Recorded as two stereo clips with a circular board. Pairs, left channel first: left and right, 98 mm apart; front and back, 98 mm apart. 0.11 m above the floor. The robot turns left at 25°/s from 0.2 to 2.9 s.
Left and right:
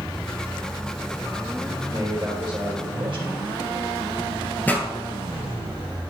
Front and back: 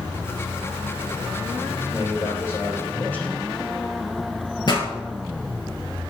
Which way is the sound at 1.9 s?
45° right.